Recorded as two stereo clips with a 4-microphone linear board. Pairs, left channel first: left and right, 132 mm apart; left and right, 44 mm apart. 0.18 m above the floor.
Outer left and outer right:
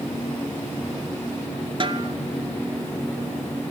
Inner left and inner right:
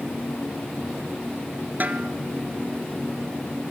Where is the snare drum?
40° right (ahead or behind), 1.1 m.